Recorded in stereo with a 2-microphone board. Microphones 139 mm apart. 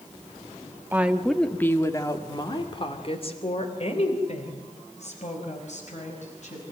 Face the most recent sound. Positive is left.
turn(degrees=60)  # may be behind; listen again after turning